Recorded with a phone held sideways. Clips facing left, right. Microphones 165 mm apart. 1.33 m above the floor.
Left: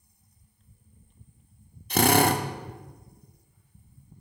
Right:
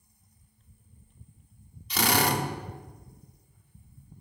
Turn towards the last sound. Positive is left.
turn(degrees=55)  # may be behind; listen again after turning